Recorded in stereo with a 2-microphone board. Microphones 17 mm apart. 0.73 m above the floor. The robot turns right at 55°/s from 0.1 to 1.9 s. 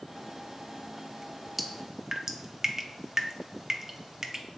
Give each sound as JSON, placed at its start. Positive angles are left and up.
{"t": 1.6, "sound": "dripping", "side_deg": -10, "distance_m": 0.7}